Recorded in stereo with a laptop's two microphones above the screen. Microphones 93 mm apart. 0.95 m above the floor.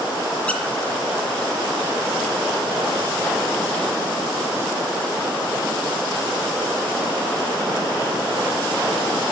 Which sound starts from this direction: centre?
A squeak, at 0.5 s.